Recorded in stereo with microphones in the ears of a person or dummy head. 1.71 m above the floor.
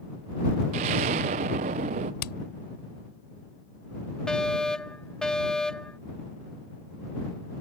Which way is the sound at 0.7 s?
40° right (ahead or behind).